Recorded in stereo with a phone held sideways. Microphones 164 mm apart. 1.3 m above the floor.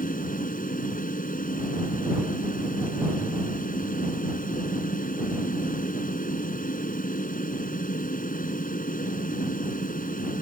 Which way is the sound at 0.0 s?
55° left (ahead or behind).